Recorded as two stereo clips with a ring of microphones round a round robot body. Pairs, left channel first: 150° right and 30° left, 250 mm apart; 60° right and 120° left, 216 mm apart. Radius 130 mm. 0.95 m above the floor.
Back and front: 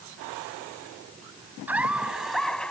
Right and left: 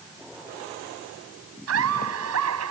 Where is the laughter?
115° left; by 2.7 s 125° left.